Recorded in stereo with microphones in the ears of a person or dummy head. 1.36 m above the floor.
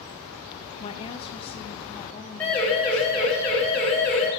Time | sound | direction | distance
0.8 | a woman speaking | 30° left (ahead or behind) | 1.2 m
2.4 | a siren | 5° left (ahead or behind) | 6.5 m